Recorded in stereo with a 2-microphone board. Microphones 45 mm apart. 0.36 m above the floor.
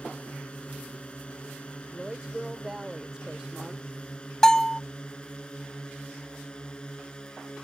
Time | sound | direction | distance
0.0 | a drone | 25° left (ahead or behind) | ?
1.9 | a woman speaking | 15° right (ahead or behind) | ?
4.4 | a bell | 15° left (ahead or behind) | ?